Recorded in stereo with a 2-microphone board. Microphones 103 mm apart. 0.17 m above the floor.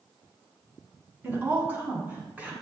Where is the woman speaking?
20° right (ahead or behind), 1.0 m; by 2.5 s 15° right (ahead or behind), 1.4 m.